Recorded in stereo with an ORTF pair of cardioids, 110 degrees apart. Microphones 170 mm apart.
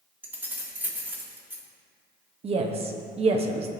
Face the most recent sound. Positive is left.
turn(degrees=-35)